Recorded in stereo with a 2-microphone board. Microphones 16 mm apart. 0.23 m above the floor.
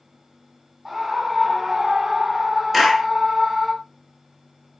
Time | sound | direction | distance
0.8 | a scream | 25° right (ahead or behind) | 1.5 m
2.7 | a clap | 10° right (ahead or behind) | 2.5 m